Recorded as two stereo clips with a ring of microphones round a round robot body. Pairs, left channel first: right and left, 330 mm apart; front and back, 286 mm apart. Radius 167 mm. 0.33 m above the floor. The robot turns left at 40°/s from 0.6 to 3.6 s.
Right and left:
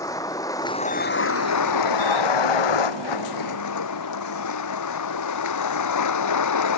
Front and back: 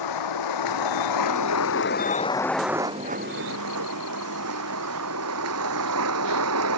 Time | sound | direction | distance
0.0 | a vehicle | 10° right | ?